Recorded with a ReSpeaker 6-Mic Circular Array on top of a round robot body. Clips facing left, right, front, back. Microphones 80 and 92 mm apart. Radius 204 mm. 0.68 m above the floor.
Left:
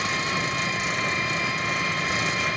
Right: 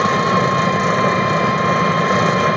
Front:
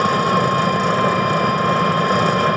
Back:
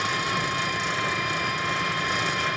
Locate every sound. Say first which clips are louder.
0.0 s an engine running: right 12 dB, front 11 dB; 45° right